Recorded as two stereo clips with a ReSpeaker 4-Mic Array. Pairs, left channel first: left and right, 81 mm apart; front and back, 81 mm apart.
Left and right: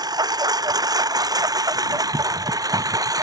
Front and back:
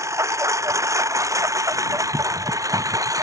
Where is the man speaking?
I don't hear a man speaking.